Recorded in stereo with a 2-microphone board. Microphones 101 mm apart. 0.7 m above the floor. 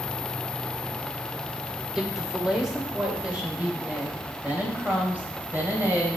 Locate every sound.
1.9 s a woman speaking: centre (ahead or behind), 2.5 m; by 6.2 s 20° right (ahead or behind), 4 m